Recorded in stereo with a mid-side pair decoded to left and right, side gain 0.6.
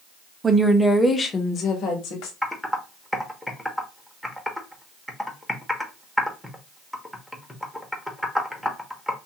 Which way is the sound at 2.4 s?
Straight ahead.